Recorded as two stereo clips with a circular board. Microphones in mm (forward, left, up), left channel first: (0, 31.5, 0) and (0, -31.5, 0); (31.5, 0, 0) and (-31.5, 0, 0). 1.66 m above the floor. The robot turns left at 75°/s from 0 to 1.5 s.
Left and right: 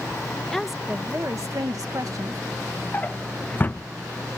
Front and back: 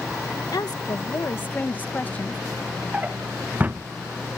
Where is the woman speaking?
20° left; by 2.4 s 65° right.